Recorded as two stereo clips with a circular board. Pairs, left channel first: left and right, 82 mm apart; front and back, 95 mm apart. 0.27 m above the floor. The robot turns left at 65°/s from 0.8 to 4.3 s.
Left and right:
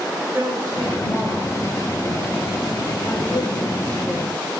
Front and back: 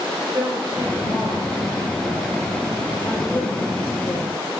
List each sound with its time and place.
0.3 s a woman speaking: 135° right, 5 m; by 4.4 s straight ahead, 5 m